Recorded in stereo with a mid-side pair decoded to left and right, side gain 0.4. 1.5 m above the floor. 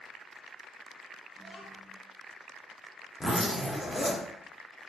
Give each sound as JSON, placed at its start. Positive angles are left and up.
{"t": 1.4, "sound": "a child speaking", "azimuth_deg": -5, "distance_m": 0.7}
{"t": 3.2, "sound": "a zipper", "azimuth_deg": 5, "distance_m": 0.9}